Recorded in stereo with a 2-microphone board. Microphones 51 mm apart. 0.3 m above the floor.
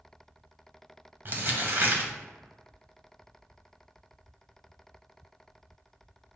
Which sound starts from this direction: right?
Crumpling, at 1.2 s.